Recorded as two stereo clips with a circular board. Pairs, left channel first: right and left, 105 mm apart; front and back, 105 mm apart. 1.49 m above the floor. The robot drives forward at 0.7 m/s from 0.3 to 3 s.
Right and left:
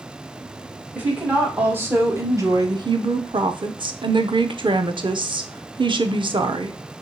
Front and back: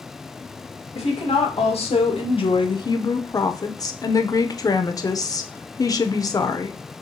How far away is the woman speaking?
About 1.8 m.